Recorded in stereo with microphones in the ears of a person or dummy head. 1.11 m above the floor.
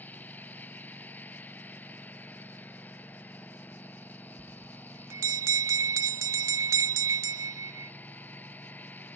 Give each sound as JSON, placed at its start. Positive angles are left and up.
{"t": 0.0, "sound": "a lawn mower", "side_deg": 10}
{"t": 4.4, "sound": "a bell", "side_deg": -15}